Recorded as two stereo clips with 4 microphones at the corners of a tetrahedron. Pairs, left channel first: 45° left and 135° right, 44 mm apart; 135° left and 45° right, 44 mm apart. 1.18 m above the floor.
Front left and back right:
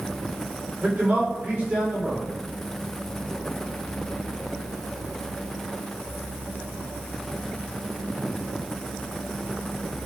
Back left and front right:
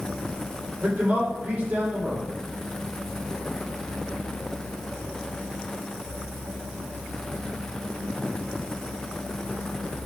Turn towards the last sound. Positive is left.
turn(degrees=-90)